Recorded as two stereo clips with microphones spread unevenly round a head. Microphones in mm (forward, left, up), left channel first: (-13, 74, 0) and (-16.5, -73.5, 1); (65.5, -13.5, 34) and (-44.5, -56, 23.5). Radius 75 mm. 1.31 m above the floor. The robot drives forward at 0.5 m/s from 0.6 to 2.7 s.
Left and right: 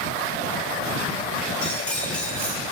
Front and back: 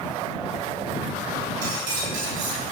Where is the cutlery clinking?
170° left, 5.5 m.